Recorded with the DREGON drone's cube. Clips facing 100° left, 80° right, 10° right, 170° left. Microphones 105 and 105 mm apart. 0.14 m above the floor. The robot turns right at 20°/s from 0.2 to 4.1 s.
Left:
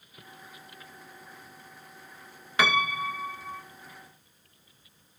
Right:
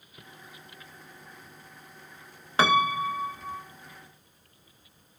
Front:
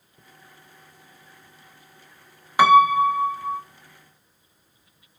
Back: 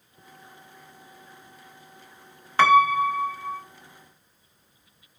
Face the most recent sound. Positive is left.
turn(degrees=-50)